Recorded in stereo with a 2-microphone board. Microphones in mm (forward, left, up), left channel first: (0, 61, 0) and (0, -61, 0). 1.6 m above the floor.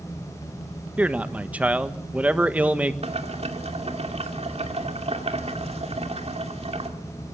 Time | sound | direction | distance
1.0 | a man speaking | 10° right (ahead or behind) | 1.3 m
3.0 | boiling | 60° right (ahead or behind) | 2.5 m